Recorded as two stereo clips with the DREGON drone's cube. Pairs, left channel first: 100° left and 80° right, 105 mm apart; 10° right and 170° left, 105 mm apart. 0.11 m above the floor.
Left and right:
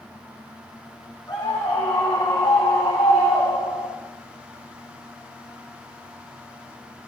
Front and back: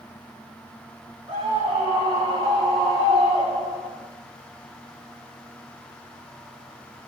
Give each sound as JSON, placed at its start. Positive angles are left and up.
{"t": 1.3, "sound": "a scream", "azimuth_deg": 155, "distance_m": 6.5}